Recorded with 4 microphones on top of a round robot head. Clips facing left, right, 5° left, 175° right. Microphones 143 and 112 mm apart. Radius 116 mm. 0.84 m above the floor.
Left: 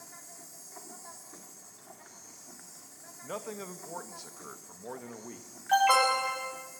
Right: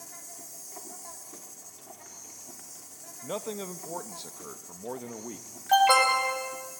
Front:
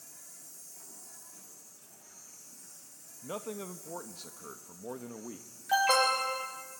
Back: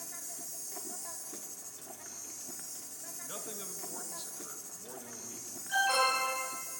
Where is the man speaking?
30° right, 1.3 m.